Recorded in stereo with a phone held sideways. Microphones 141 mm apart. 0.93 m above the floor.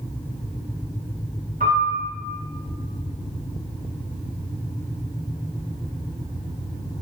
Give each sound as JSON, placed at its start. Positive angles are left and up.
{"t": 1.6, "sound": "a piano", "side_deg": -75, "distance_m": 1.9}